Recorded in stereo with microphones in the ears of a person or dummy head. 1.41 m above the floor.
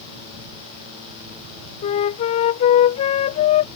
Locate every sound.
1.8 s a flute: 35° left (ahead or behind)